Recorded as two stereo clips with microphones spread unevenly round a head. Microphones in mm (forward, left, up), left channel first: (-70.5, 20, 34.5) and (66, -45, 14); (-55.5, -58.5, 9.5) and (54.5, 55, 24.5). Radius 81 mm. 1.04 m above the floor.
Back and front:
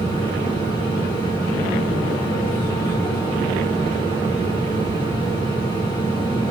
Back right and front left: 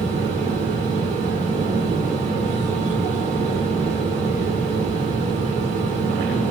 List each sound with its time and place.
0.0 s a fan: 95° left, 3 m